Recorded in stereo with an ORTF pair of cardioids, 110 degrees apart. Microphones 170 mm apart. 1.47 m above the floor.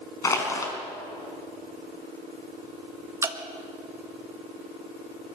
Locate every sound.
0.2 s crushing: 20° left, 4.5 m
3.2 s dripping: 20° right, 1.7 m